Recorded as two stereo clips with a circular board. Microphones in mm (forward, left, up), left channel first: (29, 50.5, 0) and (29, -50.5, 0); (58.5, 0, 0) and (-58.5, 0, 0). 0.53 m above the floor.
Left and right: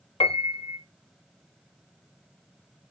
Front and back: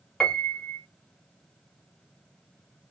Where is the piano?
85° left, 0.8 m.